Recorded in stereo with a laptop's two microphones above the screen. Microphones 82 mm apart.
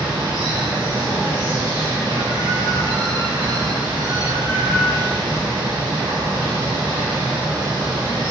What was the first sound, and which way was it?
Running water, 65° right (ahead or behind).